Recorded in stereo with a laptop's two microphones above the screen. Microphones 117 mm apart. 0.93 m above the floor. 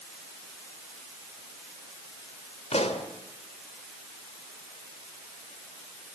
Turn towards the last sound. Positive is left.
turn(degrees=65)  # may be behind; listen again after turning